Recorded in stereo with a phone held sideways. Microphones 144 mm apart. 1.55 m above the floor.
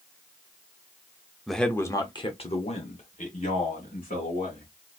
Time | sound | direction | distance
1.5 | a man speaking | centre (ahead or behind) | 0.7 m